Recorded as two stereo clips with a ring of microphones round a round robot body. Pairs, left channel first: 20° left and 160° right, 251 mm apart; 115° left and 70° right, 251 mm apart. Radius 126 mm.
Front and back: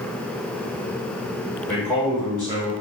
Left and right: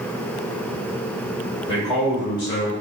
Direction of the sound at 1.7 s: 60° left.